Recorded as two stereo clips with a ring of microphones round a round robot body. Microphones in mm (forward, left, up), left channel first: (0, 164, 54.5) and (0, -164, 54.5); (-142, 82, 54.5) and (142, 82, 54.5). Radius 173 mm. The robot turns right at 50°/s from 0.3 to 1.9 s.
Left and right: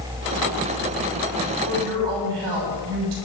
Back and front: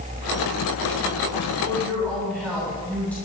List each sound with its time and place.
1.6 s a woman speaking: 105° right, 7 m; by 3.1 s 95° right, 7 m